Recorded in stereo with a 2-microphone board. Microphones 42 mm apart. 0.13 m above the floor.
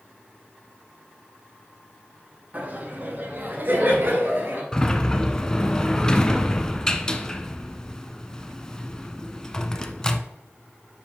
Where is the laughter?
35° right (ahead or behind), 1.5 m; by 4.6 s 55° right (ahead or behind), 2.5 m.